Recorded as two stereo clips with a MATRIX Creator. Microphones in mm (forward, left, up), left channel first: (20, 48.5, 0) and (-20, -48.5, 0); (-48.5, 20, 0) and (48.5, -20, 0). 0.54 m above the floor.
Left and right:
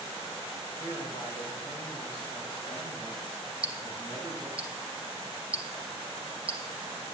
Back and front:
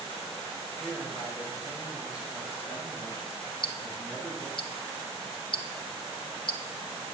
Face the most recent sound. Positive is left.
turn(degrees=170)